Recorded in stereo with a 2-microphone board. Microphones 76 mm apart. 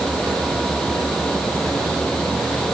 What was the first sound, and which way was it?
Only background noise.